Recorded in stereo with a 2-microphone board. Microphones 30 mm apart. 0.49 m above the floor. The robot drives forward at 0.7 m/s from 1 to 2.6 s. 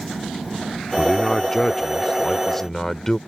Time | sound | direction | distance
1.0 | a man speaking | 20° left (ahead or behind) | ?